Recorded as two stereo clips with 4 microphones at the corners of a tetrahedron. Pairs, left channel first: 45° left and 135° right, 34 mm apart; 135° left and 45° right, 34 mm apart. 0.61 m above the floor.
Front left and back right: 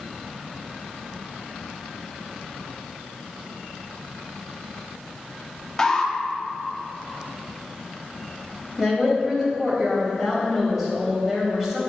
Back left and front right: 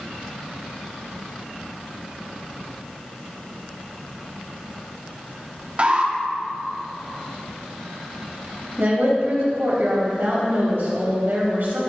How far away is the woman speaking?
About 3.5 m.